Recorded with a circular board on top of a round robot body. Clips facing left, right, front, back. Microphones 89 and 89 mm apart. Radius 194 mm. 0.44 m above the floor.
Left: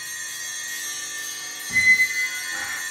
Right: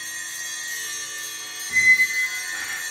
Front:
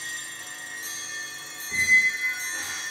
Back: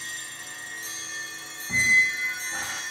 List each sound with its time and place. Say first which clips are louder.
1.7 s a squeak: right 1 dB, even; 160° left, 2 m